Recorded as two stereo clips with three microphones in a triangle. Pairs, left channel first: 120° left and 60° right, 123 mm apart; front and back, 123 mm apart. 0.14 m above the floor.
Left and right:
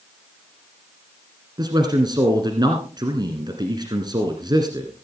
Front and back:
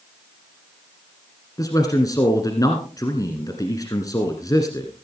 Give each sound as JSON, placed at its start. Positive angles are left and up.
{"t": 1.6, "sound": "a man speaking", "azimuth_deg": -40, "distance_m": 1.6}